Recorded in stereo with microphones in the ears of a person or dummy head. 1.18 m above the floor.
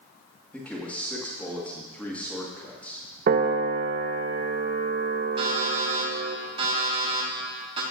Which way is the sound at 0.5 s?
10° left (ahead or behind).